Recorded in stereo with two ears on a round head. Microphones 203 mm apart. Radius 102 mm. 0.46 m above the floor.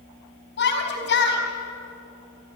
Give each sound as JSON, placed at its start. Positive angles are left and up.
{"t": 0.6, "sound": "a shout", "side_deg": 55, "distance_m": 4.5}